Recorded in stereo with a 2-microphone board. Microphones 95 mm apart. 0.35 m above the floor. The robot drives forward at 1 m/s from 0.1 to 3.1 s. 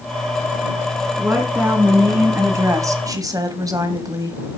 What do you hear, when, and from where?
1.2 s a woman speaking: 20° right (ahead or behind), 3 m; by 4.4 s 40° right (ahead or behind), 1.7 m